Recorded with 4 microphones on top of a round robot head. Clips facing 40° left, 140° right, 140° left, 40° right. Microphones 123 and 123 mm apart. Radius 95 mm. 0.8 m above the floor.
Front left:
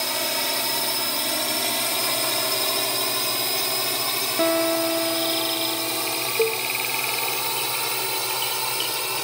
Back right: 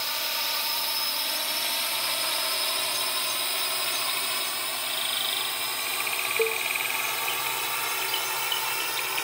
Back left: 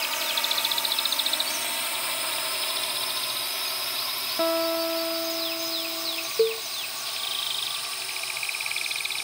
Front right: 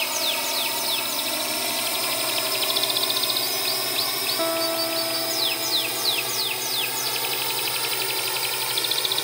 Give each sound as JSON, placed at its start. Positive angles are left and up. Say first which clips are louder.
{"t": 0.0, "sound": "a drone", "louder": "front left 7 dB, front right 4 dB", "azimuth_deg": 15}
{"t": 4.4, "sound": "a guitar", "louder": "front left 16 dB, back left 1 dB", "azimuth_deg": 55}
{"t": 6.4, "sound": "a cowbell", "louder": "front left 4 dB, back left 12 dB", "azimuth_deg": 115}